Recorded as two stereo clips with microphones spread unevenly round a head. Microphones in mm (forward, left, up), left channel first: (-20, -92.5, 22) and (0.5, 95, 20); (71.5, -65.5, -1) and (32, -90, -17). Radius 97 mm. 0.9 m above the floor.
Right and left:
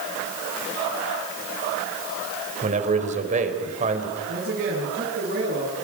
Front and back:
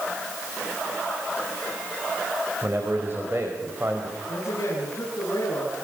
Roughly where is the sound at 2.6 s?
Behind left.